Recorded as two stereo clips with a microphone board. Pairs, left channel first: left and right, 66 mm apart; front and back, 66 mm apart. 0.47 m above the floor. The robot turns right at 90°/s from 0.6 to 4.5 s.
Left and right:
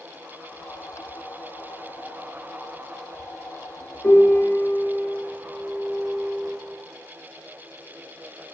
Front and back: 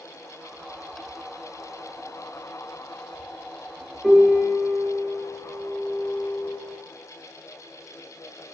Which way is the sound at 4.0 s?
95° left.